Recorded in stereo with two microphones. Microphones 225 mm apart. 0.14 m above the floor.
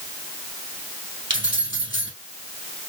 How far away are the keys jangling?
About 3 m.